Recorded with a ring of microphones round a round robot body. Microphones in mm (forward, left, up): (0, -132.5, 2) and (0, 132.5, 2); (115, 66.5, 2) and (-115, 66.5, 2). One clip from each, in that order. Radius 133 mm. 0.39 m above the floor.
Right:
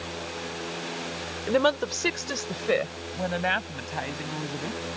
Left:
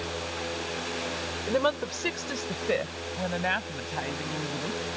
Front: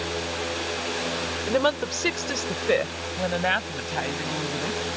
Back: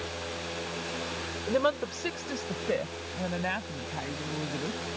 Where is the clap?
I don't hear a clap.